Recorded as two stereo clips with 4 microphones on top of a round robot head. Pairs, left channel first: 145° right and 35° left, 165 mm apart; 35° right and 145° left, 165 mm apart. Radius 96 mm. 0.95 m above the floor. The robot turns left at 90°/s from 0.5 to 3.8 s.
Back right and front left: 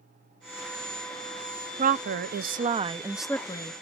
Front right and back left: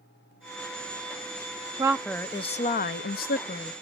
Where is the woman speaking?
75° left, 0.6 m; by 3.7 s 100° right, 0.6 m.